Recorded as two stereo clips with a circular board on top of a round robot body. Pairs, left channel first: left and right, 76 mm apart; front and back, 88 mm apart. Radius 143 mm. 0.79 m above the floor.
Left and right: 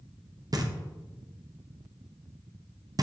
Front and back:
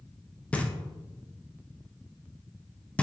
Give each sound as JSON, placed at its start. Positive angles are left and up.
{"t": 0.5, "sound": "knocking", "azimuth_deg": -75, "distance_m": 0.7}